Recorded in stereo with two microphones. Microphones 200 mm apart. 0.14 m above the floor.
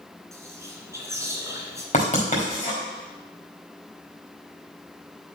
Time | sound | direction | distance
0.3 | whispering | 15° right (ahead or behind) | 1.9 m
1.9 | writing | 40° left (ahead or behind) | 4 m